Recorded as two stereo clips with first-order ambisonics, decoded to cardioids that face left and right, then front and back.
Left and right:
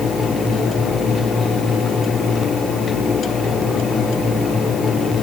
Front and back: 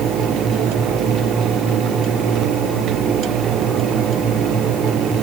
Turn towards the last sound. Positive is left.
No sound to turn to.